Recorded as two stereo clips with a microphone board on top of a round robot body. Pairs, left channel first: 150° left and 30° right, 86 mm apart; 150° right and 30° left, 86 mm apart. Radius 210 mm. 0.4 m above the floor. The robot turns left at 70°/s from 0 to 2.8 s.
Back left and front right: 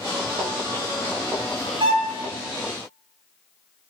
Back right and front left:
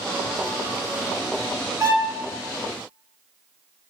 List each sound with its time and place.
1.8 s a violin: 15° right, 0.7 m; by 2.2 s 40° right, 0.7 m